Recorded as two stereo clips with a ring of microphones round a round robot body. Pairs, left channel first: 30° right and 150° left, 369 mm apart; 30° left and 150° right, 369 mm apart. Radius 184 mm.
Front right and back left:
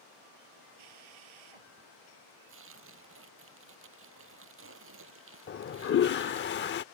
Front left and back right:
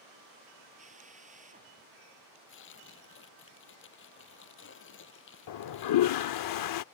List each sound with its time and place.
0.8 s a drill: 140° left
2.5 s tearing paper: 90° left
5.5 s a toilet flushing: 25° left